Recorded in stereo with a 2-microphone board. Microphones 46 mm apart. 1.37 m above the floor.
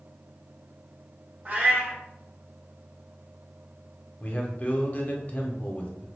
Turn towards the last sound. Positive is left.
turn(degrees=35)  # may be behind; listen again after turning